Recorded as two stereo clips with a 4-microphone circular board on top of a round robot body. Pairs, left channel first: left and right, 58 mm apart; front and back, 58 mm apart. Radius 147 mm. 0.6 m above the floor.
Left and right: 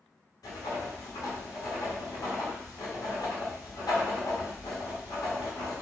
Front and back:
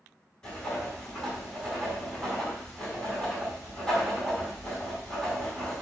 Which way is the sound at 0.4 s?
75° left.